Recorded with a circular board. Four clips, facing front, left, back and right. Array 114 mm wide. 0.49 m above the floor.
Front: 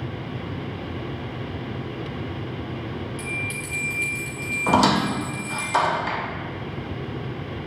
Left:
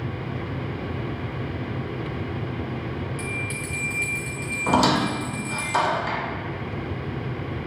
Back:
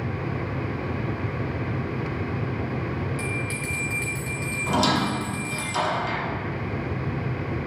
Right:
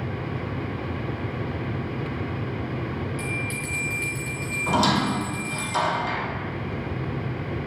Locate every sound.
3.2 s a bell: straight behind, 1.5 m
4.7 s a squeak: 25° left, 0.6 m